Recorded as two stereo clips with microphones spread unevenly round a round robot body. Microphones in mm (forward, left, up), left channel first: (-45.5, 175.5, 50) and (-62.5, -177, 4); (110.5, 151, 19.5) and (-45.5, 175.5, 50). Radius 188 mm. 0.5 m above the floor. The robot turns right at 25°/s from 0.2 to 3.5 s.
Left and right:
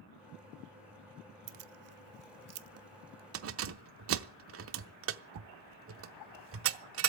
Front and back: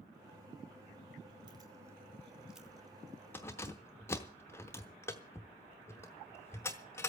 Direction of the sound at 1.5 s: 120° right.